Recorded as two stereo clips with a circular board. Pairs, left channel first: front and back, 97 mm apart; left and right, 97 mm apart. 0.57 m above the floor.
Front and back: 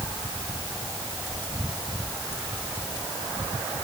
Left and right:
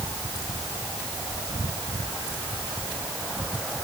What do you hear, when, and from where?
Only background noise.